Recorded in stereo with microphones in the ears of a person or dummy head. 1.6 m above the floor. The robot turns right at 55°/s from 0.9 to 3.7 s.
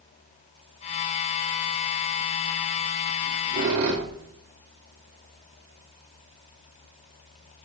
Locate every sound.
3.2 s a squeak: 25° right (ahead or behind), 1.2 m; by 4.3 s 35° right (ahead or behind), 1.2 m